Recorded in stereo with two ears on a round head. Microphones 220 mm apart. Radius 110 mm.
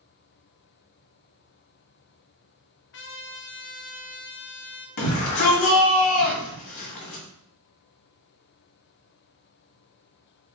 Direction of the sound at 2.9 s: 50° left (ahead or behind).